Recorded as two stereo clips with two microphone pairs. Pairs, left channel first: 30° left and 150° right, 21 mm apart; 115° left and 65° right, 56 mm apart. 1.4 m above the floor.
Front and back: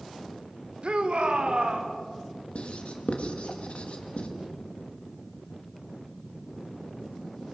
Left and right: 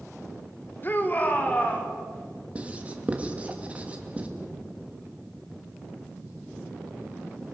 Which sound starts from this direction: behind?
A shout, at 0.8 s.